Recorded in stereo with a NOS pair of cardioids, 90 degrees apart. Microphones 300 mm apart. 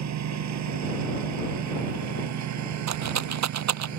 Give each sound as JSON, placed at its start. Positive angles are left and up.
{"t": 0.0, "sound": "a lawn mower", "azimuth_deg": -65}
{"t": 2.9, "sound": "a rattle", "azimuth_deg": -65}